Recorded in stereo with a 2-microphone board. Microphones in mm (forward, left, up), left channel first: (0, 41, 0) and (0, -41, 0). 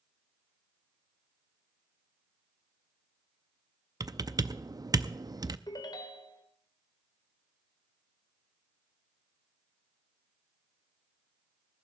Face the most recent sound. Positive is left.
turn(degrees=60)  # may be behind; listen again after turning